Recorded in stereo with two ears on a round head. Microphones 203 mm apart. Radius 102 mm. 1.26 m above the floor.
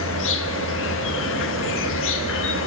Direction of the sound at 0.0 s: 60° left (ahead or behind).